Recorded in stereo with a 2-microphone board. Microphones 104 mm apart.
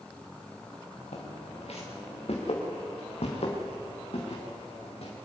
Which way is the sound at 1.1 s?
80° left.